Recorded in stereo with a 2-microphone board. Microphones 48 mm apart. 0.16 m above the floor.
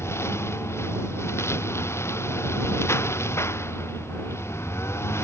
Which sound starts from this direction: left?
A lawn mower, at 0.0 s.